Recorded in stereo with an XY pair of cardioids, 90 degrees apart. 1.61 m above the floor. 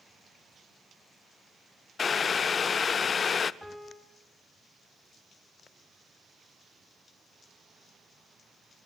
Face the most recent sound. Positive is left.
turn(degrees=5)